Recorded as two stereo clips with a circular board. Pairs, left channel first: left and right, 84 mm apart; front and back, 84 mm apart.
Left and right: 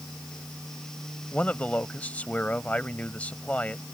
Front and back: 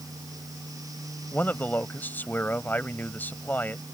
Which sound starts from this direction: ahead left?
A man speaking, at 1.3 s.